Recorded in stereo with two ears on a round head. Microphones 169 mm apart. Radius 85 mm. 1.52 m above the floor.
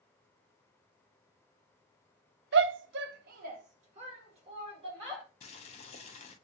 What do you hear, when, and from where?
2.5 s a shout: 65° right (ahead or behind), 0.6 m; by 5.2 s 25° right (ahead or behind), 2.5 m
5.4 s boiling: 35° left (ahead or behind), 0.6 m